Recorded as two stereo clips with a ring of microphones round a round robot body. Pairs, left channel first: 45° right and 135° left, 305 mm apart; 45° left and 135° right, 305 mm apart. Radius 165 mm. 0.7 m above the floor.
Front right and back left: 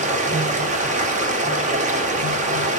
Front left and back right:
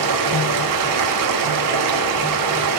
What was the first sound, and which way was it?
Running water, 155° right.